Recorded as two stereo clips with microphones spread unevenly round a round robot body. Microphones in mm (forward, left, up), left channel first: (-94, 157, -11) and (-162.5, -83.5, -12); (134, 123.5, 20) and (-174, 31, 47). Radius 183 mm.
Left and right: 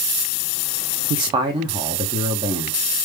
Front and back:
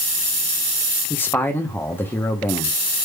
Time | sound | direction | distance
1.1 | a man speaking | 50° right | 0.7 m